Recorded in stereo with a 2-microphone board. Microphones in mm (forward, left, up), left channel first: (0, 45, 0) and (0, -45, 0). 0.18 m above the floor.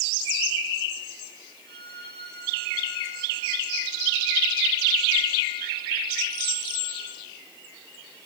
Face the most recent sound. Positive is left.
turn(degrees=55)  # may be behind; listen again after turning